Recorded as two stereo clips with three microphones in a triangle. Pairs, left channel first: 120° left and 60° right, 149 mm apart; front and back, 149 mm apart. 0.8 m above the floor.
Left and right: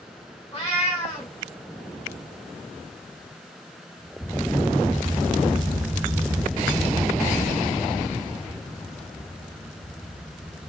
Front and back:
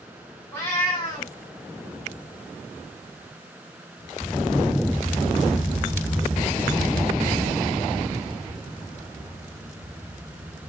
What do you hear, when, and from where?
0.5 s a cat meowing: 75° left, 1.1 m